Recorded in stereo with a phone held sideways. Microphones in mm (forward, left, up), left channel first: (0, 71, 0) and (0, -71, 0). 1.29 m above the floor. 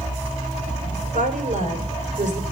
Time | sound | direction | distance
1.1 | a woman speaking | 70° right (ahead or behind) | 4 m